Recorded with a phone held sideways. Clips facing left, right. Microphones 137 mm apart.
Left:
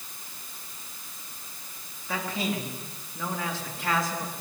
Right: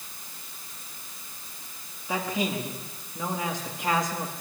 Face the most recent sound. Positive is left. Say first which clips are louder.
# right 2 dB
turn(degrees=-20)  # may be behind; listen again after turning